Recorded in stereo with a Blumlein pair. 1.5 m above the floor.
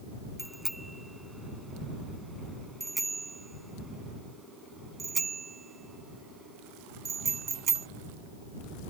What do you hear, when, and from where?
0.4 s a bicycle bell: straight ahead; by 7.9 s 25° right